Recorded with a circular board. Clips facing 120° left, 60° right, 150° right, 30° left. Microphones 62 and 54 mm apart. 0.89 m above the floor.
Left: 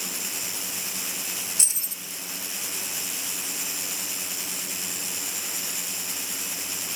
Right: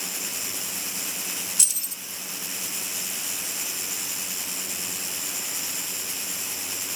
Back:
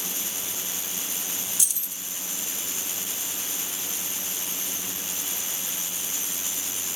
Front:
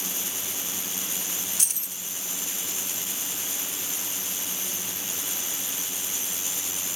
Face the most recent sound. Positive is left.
turn(degrees=65)